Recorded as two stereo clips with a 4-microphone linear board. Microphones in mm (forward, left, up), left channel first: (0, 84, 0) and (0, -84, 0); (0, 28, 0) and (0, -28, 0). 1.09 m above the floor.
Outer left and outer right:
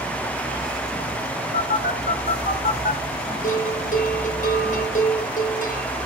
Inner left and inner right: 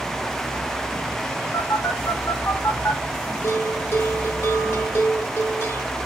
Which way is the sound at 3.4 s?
50° left (ahead or behind).